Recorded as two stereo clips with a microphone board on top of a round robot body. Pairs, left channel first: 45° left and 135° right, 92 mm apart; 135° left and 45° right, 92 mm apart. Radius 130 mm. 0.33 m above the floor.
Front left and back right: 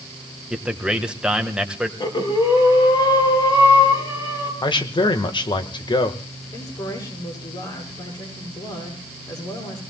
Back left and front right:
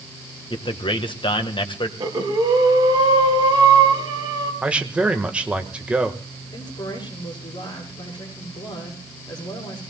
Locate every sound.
0.5 s a man speaking: 145° left, 2 m
2.0 s breathing: straight ahead, 4.5 m
4.6 s a man speaking: 30° left, 2.0 m
6.5 s a woman speaking: 90° left, 10 m